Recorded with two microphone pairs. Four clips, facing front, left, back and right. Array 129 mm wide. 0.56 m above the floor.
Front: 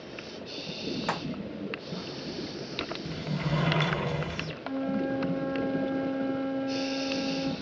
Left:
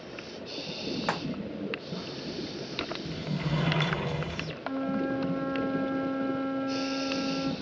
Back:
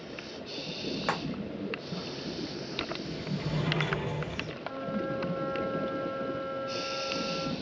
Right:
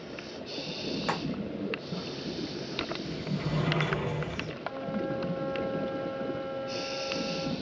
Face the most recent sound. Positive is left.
turn(degrees=125)